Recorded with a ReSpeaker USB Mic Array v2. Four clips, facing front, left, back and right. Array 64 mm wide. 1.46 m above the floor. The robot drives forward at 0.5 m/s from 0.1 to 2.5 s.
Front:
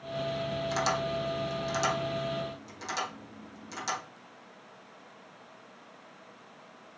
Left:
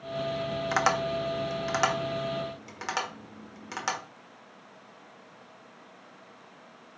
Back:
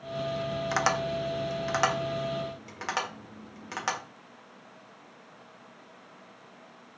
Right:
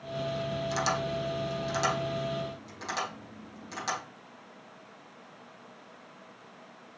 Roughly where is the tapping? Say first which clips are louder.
Left 5 dB, back 3 dB; behind left.